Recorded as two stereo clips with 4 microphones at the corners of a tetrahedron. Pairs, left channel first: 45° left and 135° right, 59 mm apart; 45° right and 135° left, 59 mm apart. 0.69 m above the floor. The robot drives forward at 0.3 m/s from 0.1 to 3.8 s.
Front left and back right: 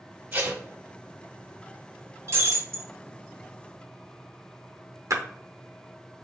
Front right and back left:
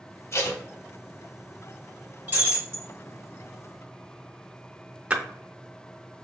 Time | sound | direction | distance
0.3 | tape being pulled | 80° right | 1.0 m
2.3 | breaking glass | 170° right | 1.2 m
5.1 | a splash | 155° right | 0.5 m